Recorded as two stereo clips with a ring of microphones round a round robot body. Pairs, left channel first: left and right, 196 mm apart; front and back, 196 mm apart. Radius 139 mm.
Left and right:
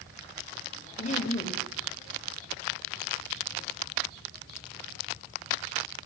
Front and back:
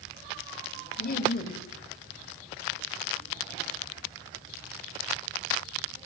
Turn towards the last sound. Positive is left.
turn(degrees=40)